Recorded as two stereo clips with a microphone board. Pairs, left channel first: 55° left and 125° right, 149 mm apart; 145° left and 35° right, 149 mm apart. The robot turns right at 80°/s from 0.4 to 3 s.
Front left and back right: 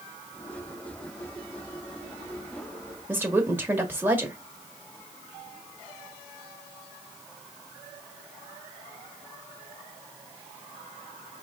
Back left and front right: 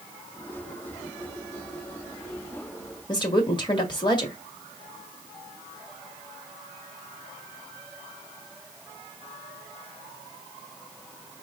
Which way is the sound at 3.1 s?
170° left.